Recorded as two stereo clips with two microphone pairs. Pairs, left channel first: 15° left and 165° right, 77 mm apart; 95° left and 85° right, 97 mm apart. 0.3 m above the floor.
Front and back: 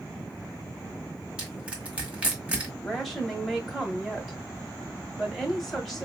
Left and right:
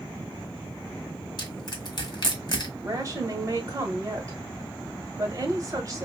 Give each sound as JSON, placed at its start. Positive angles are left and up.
{"t": 1.4, "sound": "crushing", "azimuth_deg": 120, "distance_m": 1.3}
{"t": 2.8, "sound": "a woman speaking", "azimuth_deg": -75, "distance_m": 1.2}